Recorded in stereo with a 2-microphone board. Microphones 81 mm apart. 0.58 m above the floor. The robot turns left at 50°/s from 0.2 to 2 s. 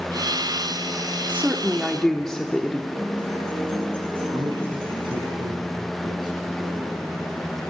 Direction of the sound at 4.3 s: 80° right.